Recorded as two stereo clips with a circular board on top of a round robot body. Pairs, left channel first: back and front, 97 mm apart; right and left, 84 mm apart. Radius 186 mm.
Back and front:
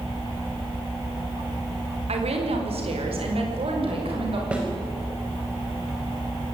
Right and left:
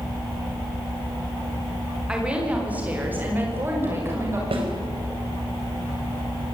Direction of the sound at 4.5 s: 80° left.